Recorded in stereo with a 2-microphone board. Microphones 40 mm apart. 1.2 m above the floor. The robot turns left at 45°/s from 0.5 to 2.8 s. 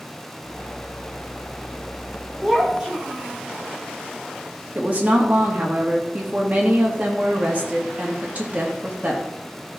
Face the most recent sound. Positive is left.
turn(degrees=-35)  # may be behind; listen again after turning